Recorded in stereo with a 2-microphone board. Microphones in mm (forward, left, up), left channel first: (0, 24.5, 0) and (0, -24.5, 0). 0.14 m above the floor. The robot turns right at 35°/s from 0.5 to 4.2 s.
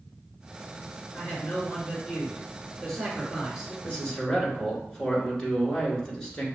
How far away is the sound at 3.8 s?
About 1.5 m.